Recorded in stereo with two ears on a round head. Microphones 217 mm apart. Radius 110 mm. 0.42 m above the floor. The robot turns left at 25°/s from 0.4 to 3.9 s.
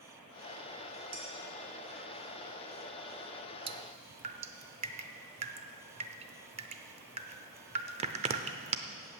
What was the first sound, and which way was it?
Dishes clattering, 55° right (ahead or behind).